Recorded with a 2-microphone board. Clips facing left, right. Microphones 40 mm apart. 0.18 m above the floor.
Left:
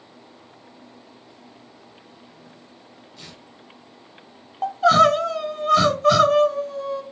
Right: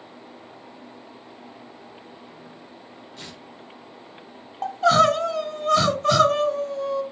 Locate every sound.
3.2 s tearing paper: 50° right (ahead or behind), 1.5 m
4.6 s crying: centre (ahead or behind), 0.8 m